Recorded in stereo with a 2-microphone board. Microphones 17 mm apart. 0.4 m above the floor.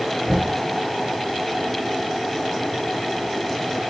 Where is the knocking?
35° right (ahead or behind), 2.5 m.